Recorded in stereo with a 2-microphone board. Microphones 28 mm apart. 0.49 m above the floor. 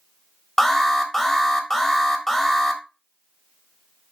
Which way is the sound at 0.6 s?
15° left (ahead or behind).